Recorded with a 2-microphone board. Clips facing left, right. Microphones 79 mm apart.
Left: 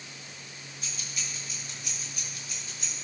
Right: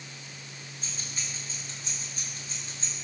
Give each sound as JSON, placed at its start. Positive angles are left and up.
{"t": 0.8, "sound": "keys jangling", "side_deg": -30, "distance_m": 6.5}